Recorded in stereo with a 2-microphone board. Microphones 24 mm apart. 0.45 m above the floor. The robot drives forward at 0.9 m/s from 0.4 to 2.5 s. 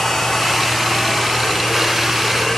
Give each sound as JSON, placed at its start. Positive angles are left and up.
{"t": 0.0, "sound": "running water", "side_deg": 10, "distance_m": 3.0}